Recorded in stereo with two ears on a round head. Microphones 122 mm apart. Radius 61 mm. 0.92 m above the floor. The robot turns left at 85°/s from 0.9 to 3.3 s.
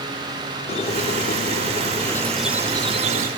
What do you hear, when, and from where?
0.7 s a squeak: 125° left, 0.8 m; by 3.3 s 75° right, 0.8 m